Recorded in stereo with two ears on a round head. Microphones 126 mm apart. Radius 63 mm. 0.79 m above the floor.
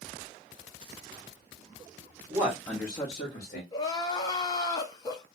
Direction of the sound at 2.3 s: 15° right (ahead or behind).